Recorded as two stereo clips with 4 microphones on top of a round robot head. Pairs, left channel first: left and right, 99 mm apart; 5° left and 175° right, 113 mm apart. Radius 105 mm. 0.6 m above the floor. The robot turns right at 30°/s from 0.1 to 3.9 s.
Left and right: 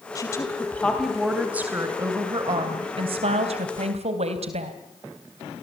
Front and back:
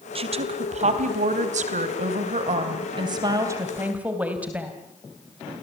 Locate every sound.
0.1 s a woman speaking: 150° left, 3.5 m; by 4.7 s 95° right, 3.5 m